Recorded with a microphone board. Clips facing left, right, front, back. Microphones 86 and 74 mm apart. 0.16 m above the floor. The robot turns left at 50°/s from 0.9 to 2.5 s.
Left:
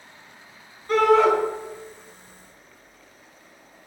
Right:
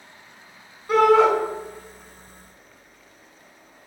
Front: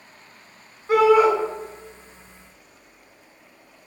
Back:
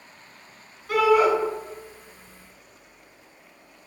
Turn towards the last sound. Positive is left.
turn(degrees=-100)